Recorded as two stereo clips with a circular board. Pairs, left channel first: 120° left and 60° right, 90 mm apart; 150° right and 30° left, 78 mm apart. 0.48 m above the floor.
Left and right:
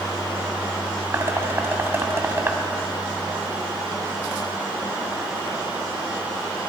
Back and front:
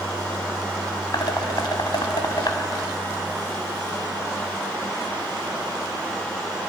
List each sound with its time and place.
1.1 s dishes clattering: 120° right, 2.5 m